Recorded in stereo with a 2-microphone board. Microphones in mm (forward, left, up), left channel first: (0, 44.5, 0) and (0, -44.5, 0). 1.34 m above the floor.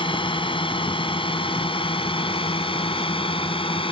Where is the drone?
70° left (ahead or behind); by 3.9 s 80° left.